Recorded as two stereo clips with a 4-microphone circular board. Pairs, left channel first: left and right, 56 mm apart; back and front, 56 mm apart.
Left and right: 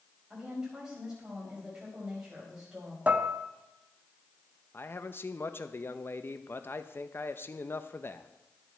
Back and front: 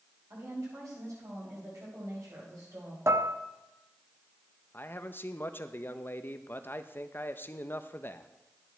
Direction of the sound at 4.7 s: 135° left.